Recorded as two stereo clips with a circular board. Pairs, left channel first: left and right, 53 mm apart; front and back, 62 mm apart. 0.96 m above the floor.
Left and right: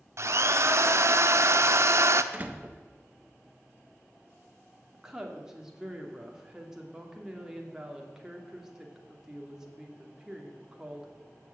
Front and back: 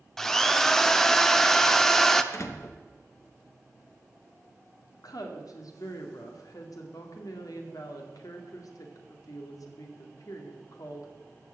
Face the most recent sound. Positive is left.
turn(degrees=-10)